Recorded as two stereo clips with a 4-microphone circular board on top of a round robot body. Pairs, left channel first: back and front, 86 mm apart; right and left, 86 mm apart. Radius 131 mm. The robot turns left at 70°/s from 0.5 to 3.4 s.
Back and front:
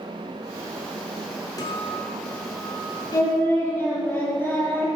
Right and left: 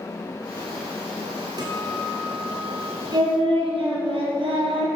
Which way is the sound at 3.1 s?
135° left.